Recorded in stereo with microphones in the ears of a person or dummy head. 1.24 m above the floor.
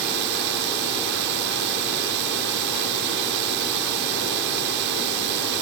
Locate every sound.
0.0 s a drone: 60° right (ahead or behind)